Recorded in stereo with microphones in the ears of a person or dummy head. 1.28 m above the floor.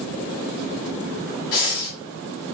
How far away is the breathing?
About 1.2 m.